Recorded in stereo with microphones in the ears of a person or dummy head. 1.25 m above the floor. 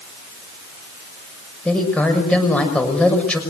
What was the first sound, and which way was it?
A woman speaking, 10° left (ahead or behind).